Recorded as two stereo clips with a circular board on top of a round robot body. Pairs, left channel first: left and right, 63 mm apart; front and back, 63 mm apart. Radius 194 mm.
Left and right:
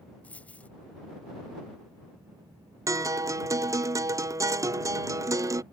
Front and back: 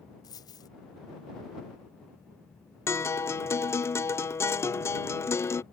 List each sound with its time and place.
0.2 s a dropped coin: 20° left
2.9 s a guitar: 50° right